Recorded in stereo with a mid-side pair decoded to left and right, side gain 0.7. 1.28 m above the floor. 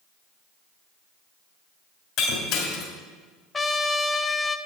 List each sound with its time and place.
2.2 s breaking glass: 50° left, 3 m
3.5 s a trumpet: 15° left, 0.7 m